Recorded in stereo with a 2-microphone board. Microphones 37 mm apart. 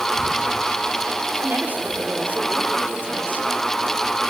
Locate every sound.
1.4 s a woman speaking: 60° right (ahead or behind), 5 m